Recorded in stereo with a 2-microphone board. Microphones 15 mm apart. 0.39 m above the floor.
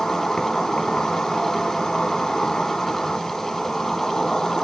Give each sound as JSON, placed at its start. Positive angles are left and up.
{"t": 0.0, "sound": "an insect", "side_deg": 40, "distance_m": 0.8}